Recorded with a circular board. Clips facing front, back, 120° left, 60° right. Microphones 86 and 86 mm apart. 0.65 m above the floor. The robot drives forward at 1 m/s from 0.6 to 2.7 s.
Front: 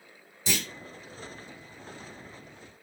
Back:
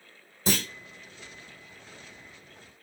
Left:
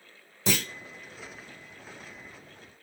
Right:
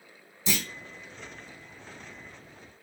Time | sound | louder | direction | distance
0.5 | a clunk | back 4 dB, left 3 dB | 140° left | 1.1 m